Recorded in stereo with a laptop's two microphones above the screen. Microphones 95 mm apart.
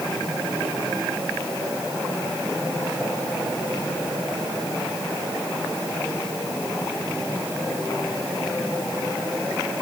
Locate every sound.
Only background noise.